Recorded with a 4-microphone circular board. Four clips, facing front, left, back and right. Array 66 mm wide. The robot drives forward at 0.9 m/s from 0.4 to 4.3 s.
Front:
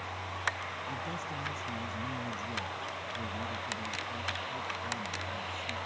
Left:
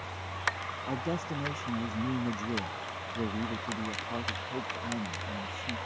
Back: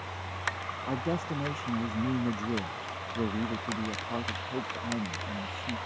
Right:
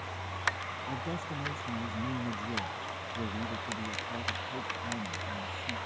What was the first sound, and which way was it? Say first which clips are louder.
A man speaking: left 5 dB, back 10 dB; 150° left.